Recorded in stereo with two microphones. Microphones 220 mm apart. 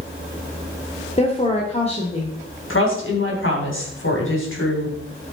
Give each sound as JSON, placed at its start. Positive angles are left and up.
{"t": 1.2, "sound": "a woman speaking", "side_deg": 30, "distance_m": 1.6}
{"t": 2.7, "sound": "a woman speaking", "side_deg": 65, "distance_m": 3.5}